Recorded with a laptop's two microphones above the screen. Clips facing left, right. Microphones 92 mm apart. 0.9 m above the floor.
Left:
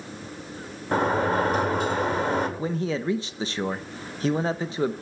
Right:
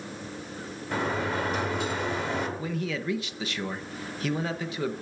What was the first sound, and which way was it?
A sliding door, 50° left (ahead or behind).